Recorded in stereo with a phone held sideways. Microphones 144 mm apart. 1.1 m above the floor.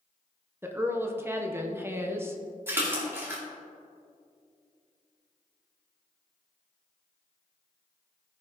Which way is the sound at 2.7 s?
15° right (ahead or behind).